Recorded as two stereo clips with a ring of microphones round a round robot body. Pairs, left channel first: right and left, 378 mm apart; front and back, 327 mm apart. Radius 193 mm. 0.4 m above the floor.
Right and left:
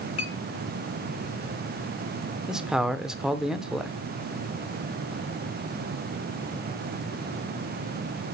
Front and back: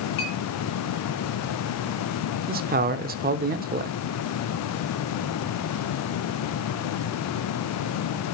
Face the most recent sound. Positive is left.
turn(degrees=175)